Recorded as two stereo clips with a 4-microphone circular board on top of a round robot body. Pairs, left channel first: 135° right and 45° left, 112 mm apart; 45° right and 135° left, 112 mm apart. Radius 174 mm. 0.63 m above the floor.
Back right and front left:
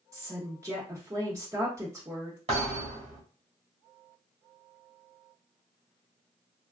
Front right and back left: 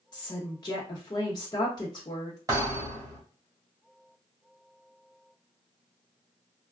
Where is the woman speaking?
10° right, 1.1 m.